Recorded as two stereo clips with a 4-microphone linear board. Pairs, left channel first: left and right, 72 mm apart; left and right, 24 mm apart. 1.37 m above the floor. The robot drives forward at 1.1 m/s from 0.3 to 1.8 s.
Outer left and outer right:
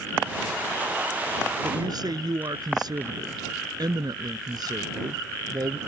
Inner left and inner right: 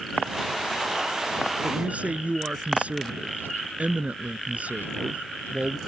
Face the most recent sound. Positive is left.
turn(degrees=-70)  # may be behind; listen again after turning